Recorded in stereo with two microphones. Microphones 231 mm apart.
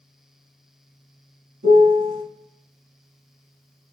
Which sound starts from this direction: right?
A piano, at 1.6 s.